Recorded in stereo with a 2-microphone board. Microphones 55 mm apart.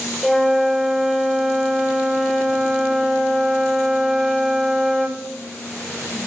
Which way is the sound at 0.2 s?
5° right (ahead or behind).